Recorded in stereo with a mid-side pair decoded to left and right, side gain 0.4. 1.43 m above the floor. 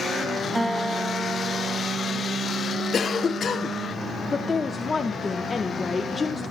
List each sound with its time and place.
0.6 s a guitar: 10° right, 1.8 m
2.9 s a cough: 55° left, 1.0 m
4.3 s a woman speaking: 40° left, 1.3 m